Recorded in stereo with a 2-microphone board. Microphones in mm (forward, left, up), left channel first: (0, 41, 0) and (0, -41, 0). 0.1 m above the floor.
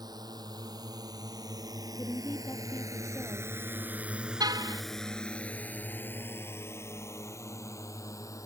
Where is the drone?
55° right (ahead or behind); by 8.5 s 40° left (ahead or behind).